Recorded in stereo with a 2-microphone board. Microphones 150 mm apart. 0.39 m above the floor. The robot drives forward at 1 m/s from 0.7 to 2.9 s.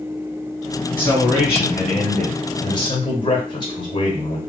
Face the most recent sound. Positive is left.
turn(degrees=30)  # may be behind; listen again after turning